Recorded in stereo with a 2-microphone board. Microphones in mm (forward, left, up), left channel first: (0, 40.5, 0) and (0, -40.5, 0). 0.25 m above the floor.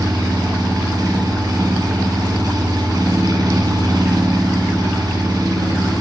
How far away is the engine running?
About 1.3 m.